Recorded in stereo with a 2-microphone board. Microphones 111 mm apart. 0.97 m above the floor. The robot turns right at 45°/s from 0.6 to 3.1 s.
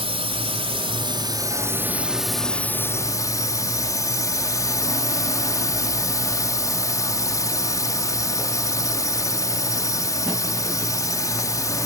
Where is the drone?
75° right; by 11.9 s 35° left.